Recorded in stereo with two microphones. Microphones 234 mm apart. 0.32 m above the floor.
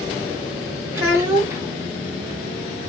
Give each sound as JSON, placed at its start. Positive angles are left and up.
{"t": 0.9, "sound": "a child speaking", "side_deg": -10, "distance_m": 1.8}